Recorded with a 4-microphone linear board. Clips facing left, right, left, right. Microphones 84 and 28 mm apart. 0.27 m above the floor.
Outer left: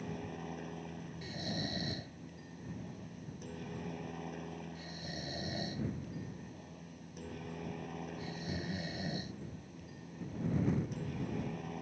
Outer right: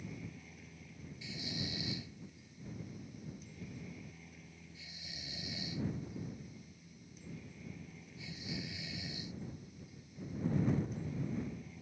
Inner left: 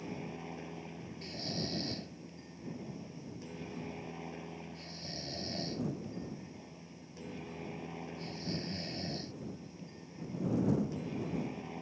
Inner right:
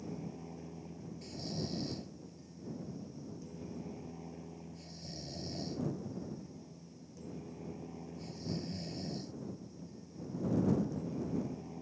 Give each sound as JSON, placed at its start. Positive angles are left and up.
{"t": 0.0, "sound": "a helicopter", "side_deg": 60}
{"t": 1.2, "sound": "snoring", "side_deg": 45}